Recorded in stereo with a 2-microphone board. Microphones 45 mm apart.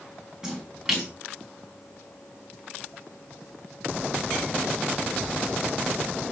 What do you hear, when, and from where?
0.4 s a splash: 15° right (ahead or behind), 5 m